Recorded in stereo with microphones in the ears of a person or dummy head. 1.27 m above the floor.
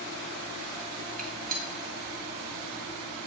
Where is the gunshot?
45° right (ahead or behind), 0.8 m.